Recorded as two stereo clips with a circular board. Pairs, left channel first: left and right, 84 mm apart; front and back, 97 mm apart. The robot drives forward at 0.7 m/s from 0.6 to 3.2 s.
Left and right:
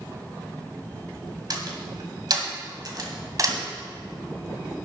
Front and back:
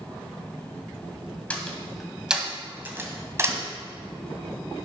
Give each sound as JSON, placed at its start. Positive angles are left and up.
{"t": 1.5, "sound": "a door slam", "azimuth_deg": -75, "distance_m": 1.6}